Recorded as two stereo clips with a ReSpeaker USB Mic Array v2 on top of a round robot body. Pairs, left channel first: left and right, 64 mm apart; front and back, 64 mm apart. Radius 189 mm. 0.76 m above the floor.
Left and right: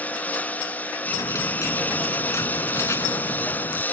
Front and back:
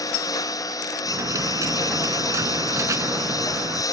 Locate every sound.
0.0 s a lawn mower: 25° left
1.1 s a dropped coin: 135° left